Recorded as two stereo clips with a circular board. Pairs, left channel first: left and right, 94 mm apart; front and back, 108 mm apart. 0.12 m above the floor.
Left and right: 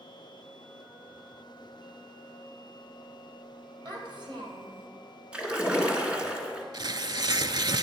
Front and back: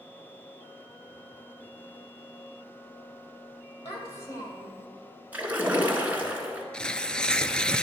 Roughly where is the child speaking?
Ahead right.